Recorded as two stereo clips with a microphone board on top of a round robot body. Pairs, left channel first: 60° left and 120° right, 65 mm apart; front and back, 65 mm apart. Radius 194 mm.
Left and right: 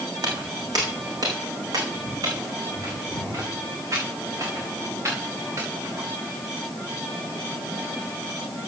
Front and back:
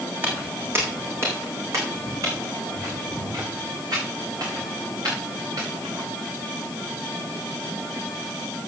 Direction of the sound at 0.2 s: 120° right.